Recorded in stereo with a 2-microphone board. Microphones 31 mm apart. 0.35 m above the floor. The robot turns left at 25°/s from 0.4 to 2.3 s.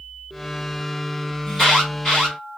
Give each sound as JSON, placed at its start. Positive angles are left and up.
{"t": 1.5, "sound": "an alarm", "side_deg": 20, "distance_m": 2.0}